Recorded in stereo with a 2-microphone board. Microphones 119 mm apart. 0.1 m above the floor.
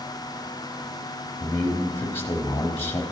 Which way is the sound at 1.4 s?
20° left (ahead or behind).